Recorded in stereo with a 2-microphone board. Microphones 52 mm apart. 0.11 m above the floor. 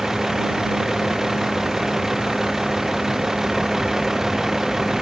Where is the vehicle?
10° right (ahead or behind).